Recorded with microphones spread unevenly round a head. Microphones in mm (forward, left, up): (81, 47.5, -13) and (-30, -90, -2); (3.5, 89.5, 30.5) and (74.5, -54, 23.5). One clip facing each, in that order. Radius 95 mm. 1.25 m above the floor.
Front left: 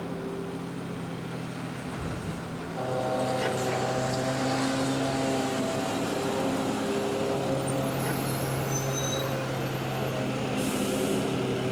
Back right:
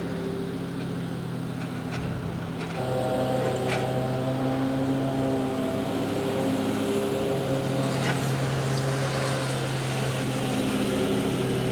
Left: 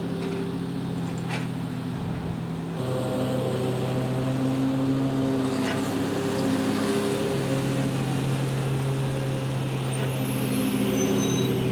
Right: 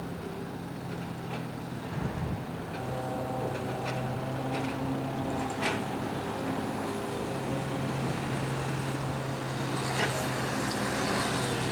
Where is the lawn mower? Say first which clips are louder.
Back right 3 dB, left 9 dB; 155° left; by 11.7 s 150° left.